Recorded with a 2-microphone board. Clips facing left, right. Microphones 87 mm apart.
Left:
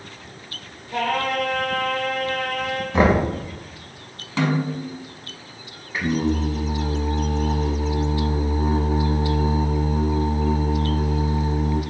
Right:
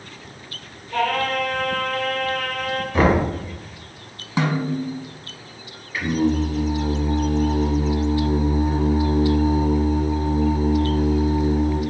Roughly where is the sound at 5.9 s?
Left.